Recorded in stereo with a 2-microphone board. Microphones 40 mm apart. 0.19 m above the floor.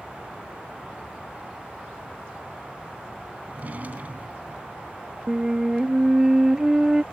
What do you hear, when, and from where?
3.5 s a drawer: 45° right (ahead or behind)
5.3 s a flute: 15° right (ahead or behind)